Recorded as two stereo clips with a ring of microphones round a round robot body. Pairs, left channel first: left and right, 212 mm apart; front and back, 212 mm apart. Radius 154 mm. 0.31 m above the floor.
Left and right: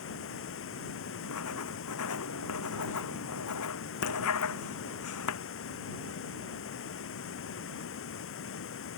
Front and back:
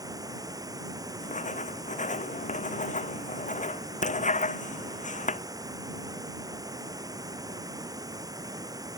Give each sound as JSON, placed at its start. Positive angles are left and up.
{"t": 0.0, "sound": "running water", "azimuth_deg": 105}
{"t": 1.2, "sound": "writing", "azimuth_deg": 55}